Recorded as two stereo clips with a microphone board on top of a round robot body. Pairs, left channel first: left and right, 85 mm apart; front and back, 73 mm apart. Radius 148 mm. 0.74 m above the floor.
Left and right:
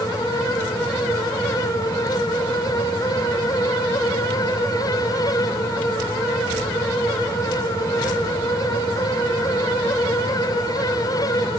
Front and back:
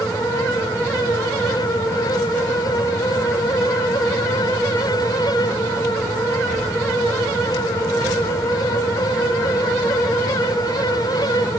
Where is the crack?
I don't hear a crack.